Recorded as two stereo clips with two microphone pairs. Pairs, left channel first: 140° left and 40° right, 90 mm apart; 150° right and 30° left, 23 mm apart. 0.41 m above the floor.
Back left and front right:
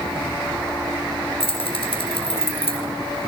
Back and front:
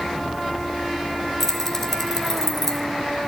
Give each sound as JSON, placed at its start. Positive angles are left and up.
{"t": 1.4, "sound": "keys jangling", "azimuth_deg": 135, "distance_m": 4.0}